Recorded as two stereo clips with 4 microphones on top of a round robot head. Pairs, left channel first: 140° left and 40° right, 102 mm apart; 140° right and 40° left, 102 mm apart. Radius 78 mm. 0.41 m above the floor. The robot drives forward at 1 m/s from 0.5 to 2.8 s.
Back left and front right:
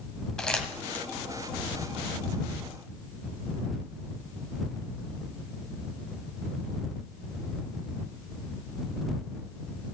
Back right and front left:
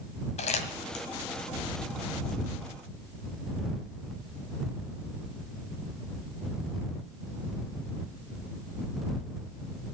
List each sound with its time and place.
0.4 s crumpling: 135° right, 1.7 m; by 1.1 s 145° right, 2 m